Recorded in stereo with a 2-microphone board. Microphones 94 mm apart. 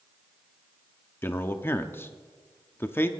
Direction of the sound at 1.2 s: 25° left (ahead or behind).